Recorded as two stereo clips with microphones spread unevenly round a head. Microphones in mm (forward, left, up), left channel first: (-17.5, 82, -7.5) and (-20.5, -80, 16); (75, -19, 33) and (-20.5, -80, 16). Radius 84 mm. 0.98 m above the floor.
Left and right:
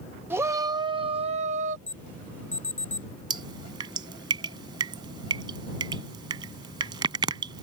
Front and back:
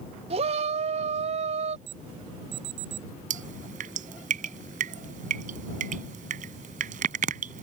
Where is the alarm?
170° left.